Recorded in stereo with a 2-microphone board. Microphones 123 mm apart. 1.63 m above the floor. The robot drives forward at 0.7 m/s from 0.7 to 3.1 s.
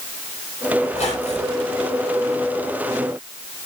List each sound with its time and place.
0.9 s a squeak: 70° left (ahead or behind), 3.5 m; by 1.6 s 75° left (ahead or behind), 3.5 m